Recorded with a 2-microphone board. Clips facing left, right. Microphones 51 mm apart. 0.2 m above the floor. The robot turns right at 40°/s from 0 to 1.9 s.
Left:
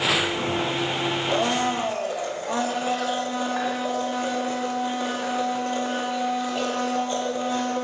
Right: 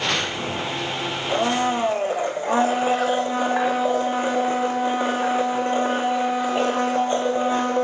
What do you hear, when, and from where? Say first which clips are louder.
1.3 s a blender: right 4 dB; 5° right (ahead or behind), 4 m; by 7.8 s 30° right (ahead or behind), 4 m